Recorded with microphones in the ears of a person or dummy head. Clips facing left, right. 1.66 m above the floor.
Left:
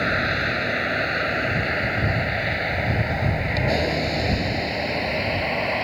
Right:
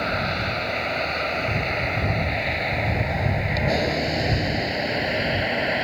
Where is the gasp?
No gasp in this recording.